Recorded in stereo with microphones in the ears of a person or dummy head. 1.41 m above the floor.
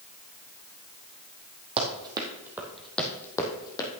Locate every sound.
1.8 s running footsteps: 30° right (ahead or behind), 2.5 m; by 3.9 s 25° left (ahead or behind), 3 m